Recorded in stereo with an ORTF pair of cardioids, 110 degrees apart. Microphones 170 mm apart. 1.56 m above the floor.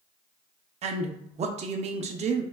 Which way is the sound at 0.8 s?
40° right.